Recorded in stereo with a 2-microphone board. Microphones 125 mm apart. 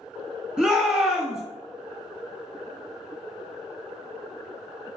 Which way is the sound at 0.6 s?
10° right (ahead or behind).